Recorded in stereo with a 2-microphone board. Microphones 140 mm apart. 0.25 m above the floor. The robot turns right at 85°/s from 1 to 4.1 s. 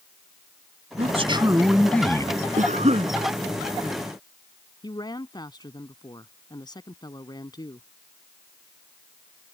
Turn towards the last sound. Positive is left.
turn(degrees=30)  # may be behind; listen again after turning